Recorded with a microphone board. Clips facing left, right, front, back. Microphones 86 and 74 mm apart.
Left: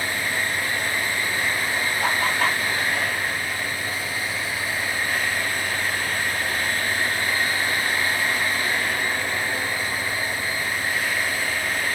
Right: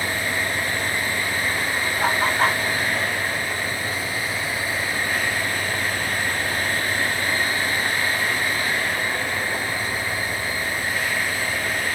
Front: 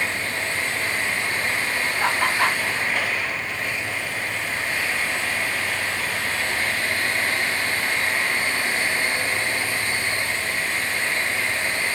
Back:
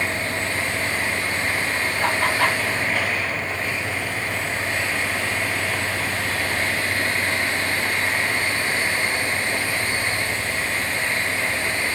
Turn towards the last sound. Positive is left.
turn(degrees=-65)